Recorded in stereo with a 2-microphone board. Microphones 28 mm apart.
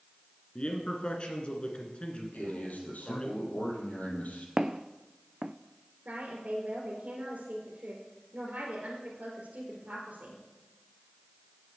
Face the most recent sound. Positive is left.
turn(degrees=-60)  # may be behind; listen again after turning